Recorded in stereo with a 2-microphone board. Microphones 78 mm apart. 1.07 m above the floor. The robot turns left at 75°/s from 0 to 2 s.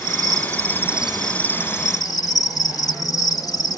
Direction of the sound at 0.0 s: 95° right.